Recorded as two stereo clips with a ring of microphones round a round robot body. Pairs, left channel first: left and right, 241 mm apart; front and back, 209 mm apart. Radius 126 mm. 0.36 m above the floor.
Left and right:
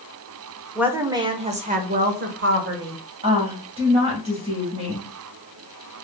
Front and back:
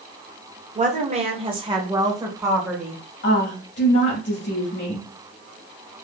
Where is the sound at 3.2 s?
30° right, 2 m.